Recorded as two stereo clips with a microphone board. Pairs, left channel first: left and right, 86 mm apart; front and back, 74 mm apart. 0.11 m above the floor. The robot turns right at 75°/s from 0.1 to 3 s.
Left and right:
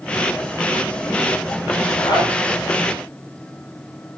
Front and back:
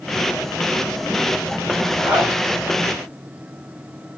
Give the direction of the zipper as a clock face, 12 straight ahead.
9 o'clock.